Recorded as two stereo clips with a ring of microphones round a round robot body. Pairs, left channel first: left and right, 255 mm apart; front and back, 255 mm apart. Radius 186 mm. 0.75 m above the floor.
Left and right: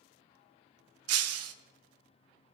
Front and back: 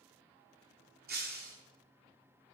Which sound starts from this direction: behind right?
Breaking glass, at 1.1 s.